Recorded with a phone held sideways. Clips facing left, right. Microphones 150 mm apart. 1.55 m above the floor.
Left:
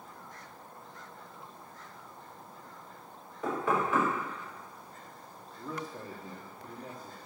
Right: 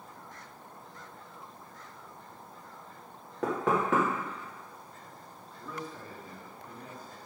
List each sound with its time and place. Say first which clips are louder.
3.4 s knocking: right 2 dB; 80° right, 2.5 m
5.5 s a man speaking: left 2 dB; 30° left (ahead or behind), 1.2 m